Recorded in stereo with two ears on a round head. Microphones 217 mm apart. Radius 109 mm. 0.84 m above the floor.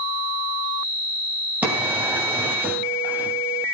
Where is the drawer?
5° right (ahead or behind), 3 m.